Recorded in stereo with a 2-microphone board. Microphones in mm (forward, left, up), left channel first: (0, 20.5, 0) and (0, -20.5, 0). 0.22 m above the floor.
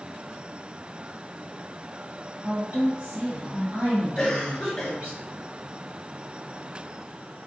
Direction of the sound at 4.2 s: 15° left (ahead or behind).